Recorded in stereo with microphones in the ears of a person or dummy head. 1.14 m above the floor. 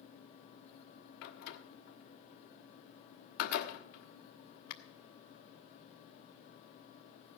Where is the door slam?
55° left (ahead or behind), 1.2 m.